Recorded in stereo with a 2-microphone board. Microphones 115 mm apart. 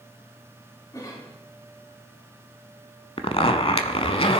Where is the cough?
35° left (ahead or behind), 4 m.